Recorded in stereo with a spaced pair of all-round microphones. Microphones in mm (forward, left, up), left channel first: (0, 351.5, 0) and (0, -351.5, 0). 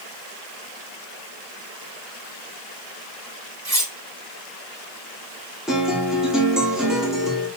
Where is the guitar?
Centre (ahead or behind), 4 m.